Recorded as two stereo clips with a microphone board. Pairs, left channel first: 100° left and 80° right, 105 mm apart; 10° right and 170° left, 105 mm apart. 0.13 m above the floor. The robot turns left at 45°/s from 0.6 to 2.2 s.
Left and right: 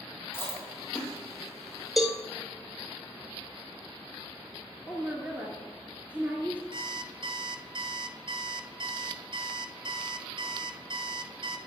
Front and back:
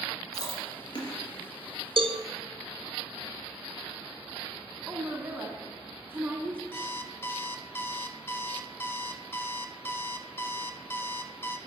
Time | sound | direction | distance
0.3 | chewing | 35° left | 3 m
2.0 | a cowbell | 170° right | 0.8 m
4.9 | a woman speaking | 140° right | 1.1 m
6.7 | an alarm clock | 75° right | 0.7 m